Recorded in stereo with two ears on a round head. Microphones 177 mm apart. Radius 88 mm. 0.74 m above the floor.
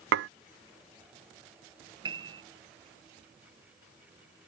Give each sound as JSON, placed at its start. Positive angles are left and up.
{"t": 0.1, "sound": "dishes clattering", "side_deg": -65}
{"t": 2.0, "sound": "a piano", "side_deg": -25}